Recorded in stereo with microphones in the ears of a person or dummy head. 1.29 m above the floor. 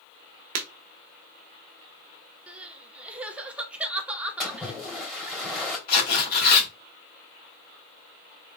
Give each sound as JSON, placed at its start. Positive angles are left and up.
{"t": 0.6, "sound": "breaking glass", "side_deg": -45, "distance_m": 1.0}
{"t": 2.5, "sound": "crying", "side_deg": -10, "distance_m": 0.9}
{"t": 4.4, "sound": "a splash", "side_deg": 0, "distance_m": 3.0}
{"t": 5.9, "sound": "tearing paper", "side_deg": 50, "distance_m": 2.5}